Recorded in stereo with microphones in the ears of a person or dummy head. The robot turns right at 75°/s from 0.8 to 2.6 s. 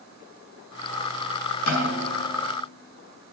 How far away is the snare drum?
About 5 m.